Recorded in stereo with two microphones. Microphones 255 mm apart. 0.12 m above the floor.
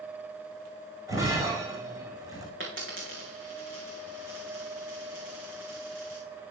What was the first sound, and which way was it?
Breaking glass, 15° right (ahead or behind).